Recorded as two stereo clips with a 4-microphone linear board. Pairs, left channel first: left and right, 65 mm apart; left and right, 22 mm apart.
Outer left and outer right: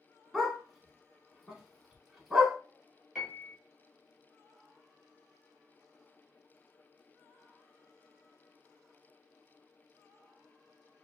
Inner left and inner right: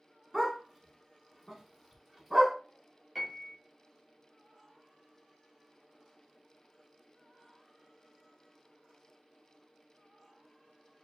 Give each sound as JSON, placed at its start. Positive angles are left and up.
{"t": 0.3, "sound": "a dog barking", "side_deg": -5, "distance_m": 0.9}
{"t": 3.1, "sound": "a piano", "side_deg": -5, "distance_m": 1.4}